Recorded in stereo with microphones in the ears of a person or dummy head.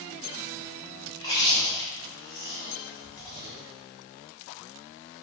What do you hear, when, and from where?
1.1 s chewing: 25° left (ahead or behind), 1.2 m